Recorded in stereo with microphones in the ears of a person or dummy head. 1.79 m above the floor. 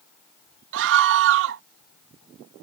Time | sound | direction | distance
0.7 | a scream | 70° right (ahead or behind) | ?